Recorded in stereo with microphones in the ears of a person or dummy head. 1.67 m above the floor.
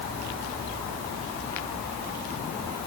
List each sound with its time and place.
Only background noise.